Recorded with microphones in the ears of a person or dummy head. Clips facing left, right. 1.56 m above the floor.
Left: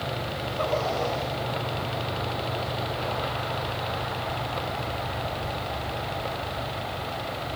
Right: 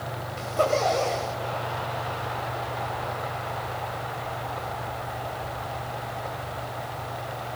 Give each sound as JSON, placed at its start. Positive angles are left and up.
{"t": 0.4, "sound": "a zipper", "side_deg": -60, "distance_m": 5.0}